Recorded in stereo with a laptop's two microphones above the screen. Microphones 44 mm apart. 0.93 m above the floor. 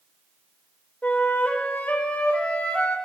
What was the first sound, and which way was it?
A flute, 25° left (ahead or behind).